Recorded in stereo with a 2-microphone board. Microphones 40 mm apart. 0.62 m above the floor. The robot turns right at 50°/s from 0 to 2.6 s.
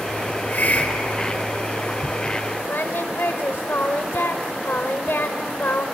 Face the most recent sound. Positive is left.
turn(degrees=70)  # may be behind; listen again after turning